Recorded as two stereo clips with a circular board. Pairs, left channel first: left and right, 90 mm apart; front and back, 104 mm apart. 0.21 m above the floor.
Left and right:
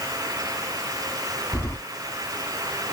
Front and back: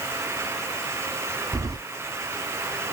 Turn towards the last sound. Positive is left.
turn(degrees=145)